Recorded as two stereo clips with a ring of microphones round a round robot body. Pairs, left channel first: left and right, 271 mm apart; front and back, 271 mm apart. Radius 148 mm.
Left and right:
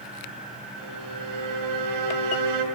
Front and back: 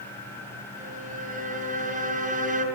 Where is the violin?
115° right, 5 m.